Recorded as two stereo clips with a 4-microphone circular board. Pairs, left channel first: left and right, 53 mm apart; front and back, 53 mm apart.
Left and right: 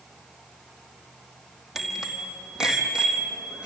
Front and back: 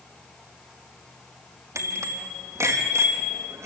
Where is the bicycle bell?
175° right, 3 m; by 3.7 s 155° right, 3.5 m.